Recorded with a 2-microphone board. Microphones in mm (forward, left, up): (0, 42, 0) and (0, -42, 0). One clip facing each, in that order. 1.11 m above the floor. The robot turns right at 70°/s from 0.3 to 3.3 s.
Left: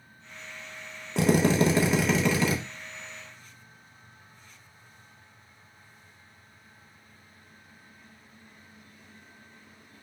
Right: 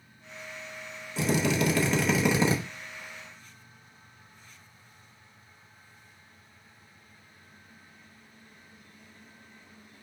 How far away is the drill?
About 0.8 m.